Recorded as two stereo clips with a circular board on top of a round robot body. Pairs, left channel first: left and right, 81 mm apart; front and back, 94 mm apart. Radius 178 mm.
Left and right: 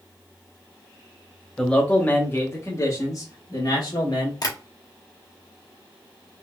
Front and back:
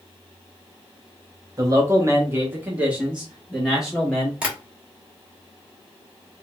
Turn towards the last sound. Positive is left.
turn(degrees=105)